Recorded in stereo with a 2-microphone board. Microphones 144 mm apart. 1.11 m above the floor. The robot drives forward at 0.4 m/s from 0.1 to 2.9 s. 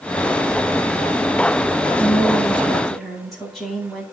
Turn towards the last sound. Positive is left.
turn(degrees=5)  # may be behind; listen again after turning